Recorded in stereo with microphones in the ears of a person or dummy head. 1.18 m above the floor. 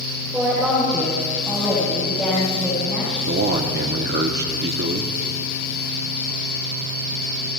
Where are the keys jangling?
I don't hear keys jangling.